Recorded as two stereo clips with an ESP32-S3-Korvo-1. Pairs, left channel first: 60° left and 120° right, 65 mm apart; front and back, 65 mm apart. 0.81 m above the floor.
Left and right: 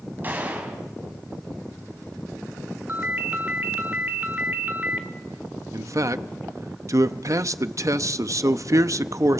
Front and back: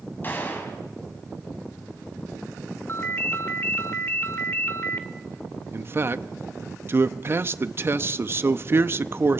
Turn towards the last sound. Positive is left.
turn(degrees=-135)